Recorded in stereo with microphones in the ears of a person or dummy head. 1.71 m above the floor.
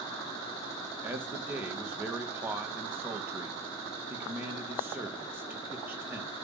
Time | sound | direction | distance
1.0 | a man speaking | 10° right (ahead or behind) | 2.5 m